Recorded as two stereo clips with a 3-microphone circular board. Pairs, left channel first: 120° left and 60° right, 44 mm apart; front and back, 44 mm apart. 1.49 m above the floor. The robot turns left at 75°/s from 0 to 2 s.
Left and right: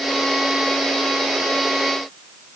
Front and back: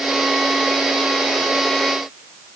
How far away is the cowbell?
No cowbell in this recording.